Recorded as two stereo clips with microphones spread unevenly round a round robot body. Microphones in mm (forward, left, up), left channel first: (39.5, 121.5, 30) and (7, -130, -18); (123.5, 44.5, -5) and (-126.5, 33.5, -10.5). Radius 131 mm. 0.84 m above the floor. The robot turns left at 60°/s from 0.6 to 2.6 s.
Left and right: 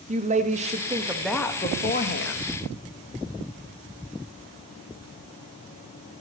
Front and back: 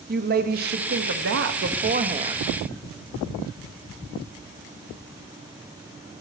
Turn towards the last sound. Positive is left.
turn(degrees=105)